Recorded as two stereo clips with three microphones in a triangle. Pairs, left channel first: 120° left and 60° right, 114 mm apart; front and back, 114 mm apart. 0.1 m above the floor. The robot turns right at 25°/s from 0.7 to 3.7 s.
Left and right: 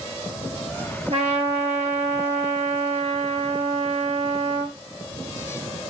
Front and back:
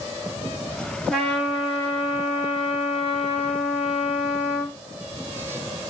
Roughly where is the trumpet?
Right.